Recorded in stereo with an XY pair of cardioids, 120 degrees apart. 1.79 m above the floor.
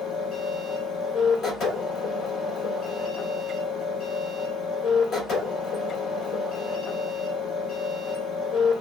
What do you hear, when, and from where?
0.0 s a machine running: 60° left, 3.5 m